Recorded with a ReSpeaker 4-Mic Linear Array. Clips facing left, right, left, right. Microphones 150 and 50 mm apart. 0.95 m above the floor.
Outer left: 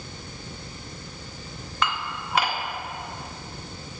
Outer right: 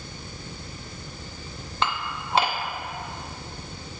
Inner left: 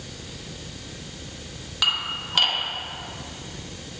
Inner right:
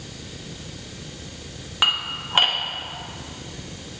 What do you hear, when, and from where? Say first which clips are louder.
1.8 s dishes clattering: outer right 1 dB, inner right 2 dB; 30° right (ahead or behind), 0.7 m